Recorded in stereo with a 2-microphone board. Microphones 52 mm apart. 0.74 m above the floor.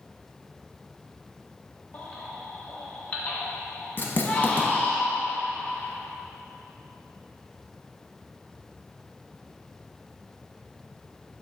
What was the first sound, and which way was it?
A baby crying, 30° left (ahead or behind).